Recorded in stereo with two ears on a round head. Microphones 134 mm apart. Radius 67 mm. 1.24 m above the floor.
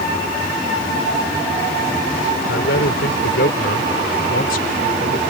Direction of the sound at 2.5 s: 85° left.